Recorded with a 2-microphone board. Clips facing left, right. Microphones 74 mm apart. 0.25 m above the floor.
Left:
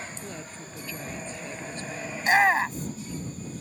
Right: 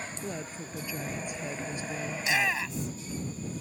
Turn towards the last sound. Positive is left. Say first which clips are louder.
# left 9 dB
turn(degrees=45)  # may be behind; listen again after turning